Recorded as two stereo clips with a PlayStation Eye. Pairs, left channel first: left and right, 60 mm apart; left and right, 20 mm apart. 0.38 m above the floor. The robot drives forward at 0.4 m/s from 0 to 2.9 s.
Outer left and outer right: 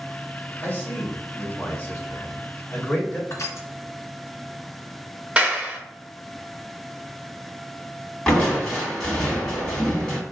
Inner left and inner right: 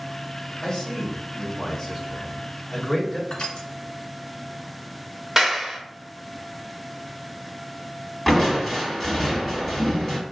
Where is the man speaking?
30° left (ahead or behind), 1.4 m; by 3.2 s 25° left (ahead or behind), 1.7 m.